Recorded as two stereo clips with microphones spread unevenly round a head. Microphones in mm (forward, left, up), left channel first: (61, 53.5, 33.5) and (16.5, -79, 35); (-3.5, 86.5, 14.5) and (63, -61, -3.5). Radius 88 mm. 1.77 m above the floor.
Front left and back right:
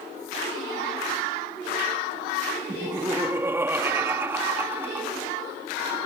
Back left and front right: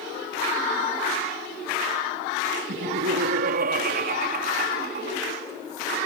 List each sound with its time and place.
2.7 s laughter: 35° right